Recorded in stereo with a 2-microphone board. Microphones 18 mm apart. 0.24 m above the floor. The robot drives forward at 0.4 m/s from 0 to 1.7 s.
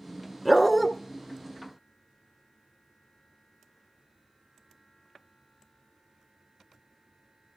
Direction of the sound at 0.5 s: 5° left (ahead or behind).